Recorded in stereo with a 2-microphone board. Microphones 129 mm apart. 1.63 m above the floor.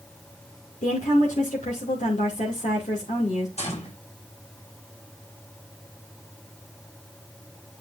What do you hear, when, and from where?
0.8 s a woman speaking: 70° left (ahead or behind), 2.5 m
3.6 s a gunshot: 55° left (ahead or behind), 4 m